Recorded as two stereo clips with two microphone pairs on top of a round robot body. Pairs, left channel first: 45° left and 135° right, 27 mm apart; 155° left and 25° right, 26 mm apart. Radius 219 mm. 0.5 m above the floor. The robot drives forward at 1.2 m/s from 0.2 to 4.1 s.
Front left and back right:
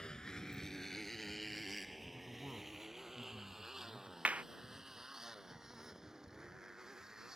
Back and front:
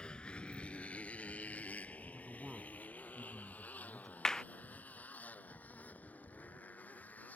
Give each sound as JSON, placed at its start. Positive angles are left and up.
{"t": 0.0, "sound": "a motorcycle", "azimuth_deg": 100}
{"t": 2.1, "sound": "a man speaking", "azimuth_deg": -90}
{"t": 4.2, "sound": "a clap", "azimuth_deg": -140}